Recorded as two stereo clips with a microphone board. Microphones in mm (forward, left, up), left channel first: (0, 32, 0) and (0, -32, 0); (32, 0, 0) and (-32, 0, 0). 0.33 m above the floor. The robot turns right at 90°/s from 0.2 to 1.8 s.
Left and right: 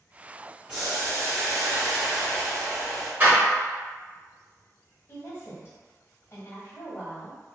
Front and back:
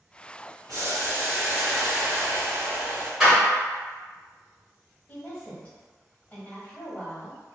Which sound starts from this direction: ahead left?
A woman speaking, at 5.1 s.